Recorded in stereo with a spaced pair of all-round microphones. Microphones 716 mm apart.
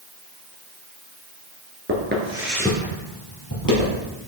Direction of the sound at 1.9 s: 20° right (ahead or behind).